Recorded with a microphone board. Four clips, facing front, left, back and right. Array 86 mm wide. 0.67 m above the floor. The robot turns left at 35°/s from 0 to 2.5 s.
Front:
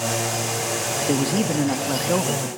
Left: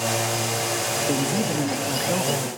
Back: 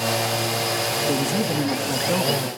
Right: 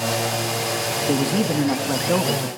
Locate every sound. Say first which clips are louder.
1.1 s a man speaking: right 4 dB, front 3 dB; 30° right, 0.6 m; by 2.5 s 80° right, 0.6 m